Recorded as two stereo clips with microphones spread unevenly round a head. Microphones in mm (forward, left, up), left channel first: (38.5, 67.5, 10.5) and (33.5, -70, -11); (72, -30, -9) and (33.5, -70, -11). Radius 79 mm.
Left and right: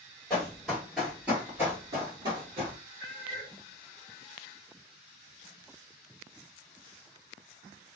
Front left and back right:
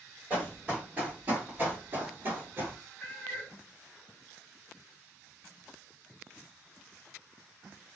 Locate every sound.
0.3 s running footsteps: 160° left, 2.0 m; by 2.8 s 135° right, 1.6 m
3.0 s a cat meowing: 65° left, 1.2 m